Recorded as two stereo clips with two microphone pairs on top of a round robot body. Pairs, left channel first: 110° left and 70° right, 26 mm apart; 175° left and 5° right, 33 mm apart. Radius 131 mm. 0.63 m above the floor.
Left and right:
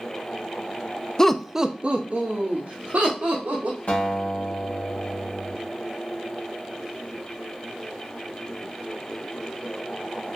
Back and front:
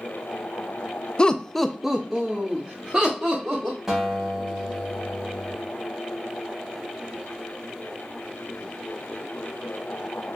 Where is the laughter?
125° left, 0.5 m; by 3.8 s 65° right, 1.6 m.